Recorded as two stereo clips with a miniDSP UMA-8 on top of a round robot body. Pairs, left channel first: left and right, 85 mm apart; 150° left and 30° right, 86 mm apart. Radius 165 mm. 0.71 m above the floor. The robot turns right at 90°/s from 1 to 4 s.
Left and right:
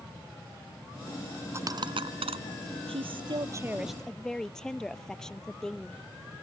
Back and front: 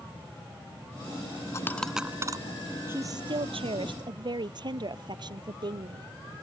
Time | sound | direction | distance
1.5 | a dropped coin | 155° right | ?
2.9 | a woman speaking | 95° right | ?